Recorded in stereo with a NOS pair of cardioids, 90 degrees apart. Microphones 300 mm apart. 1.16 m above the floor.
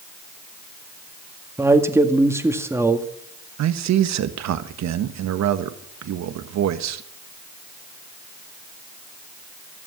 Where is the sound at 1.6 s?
10° right, 2.0 m.